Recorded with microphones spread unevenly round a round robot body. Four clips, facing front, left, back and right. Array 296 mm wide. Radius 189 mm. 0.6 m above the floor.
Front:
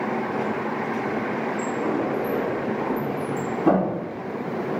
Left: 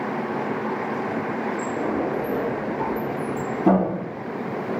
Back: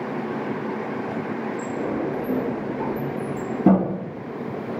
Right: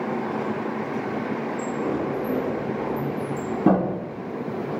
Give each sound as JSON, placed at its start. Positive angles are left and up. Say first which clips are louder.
{"t": 1.6, "sound": "a sliding door", "louder": "left 1 dB, front 2 dB", "azimuth_deg": -145, "distance_m": 3.5}